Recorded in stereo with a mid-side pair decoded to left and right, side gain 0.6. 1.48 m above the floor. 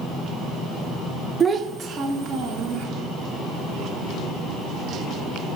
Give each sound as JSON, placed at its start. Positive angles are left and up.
{"t": 1.4, "sound": "a child speaking", "azimuth_deg": -25, "distance_m": 1.0}